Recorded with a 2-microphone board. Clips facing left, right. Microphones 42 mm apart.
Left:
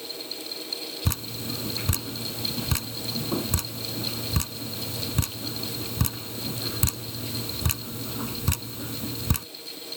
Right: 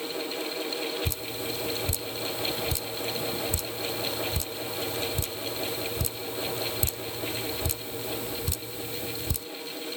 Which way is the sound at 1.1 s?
70° left (ahead or behind).